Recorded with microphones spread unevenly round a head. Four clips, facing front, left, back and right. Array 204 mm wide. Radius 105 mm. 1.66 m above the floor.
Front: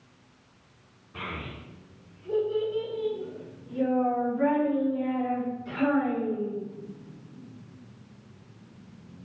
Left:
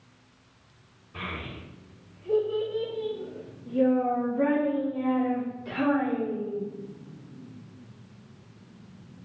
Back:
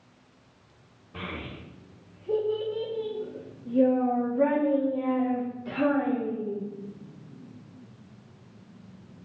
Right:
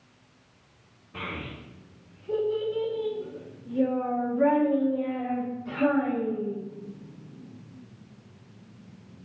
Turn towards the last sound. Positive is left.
turn(degrees=140)